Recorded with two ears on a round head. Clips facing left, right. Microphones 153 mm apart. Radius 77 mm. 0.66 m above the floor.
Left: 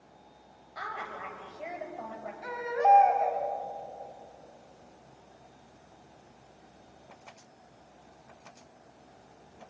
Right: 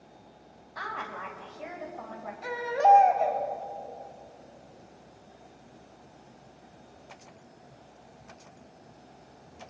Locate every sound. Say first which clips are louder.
0.8 s a woman speaking: right 2 dB; 5° left (ahead or behind), 4 m; by 2.3 s 20° left (ahead or behind), 3.5 m
2.4 s a baby crying: right 3 dB; 35° right (ahead or behind), 3.5 m